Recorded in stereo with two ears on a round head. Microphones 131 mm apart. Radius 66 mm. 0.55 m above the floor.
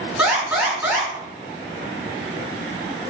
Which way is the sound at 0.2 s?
5° right (ahead or behind).